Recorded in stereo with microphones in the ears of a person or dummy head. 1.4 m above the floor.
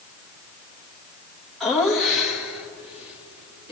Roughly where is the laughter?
Centre.